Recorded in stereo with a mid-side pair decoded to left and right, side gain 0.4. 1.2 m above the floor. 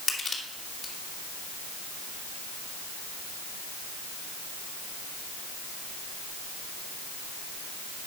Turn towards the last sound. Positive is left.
turn(degrees=45)